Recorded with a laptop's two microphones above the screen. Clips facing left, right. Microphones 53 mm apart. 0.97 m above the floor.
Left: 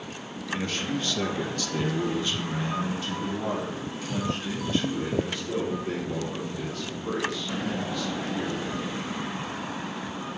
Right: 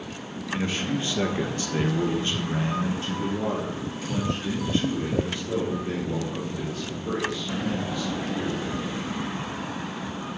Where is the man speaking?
15° right (ahead or behind), 1.2 m; by 8.7 s 20° right (ahead or behind), 4 m.